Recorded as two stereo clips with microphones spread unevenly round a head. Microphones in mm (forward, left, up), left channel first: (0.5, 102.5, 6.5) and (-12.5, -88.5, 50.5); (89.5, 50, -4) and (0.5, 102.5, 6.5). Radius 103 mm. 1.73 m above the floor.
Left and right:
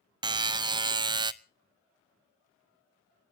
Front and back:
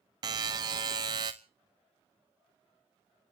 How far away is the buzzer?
About 0.6 m.